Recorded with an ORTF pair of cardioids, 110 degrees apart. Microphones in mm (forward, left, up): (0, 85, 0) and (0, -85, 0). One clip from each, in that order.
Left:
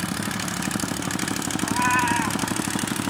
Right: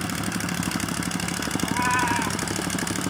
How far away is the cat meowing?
About 1.7 m.